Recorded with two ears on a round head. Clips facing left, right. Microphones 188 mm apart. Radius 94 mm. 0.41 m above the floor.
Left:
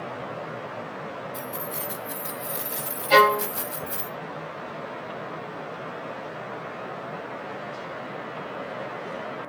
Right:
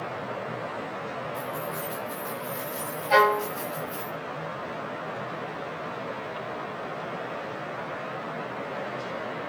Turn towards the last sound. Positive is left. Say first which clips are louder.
# left 2 dB
turn(degrees=45)  # may be behind; listen again after turning